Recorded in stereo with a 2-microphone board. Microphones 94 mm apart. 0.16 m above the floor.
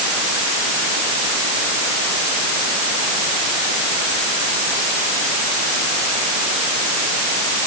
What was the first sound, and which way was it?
Only background noise.